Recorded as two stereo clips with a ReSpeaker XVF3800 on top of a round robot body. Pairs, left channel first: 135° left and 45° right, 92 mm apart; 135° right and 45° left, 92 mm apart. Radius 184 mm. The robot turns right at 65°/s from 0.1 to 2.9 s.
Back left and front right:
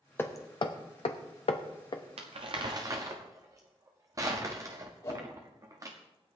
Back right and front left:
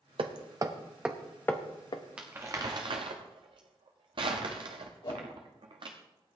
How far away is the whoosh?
About 3.5 m.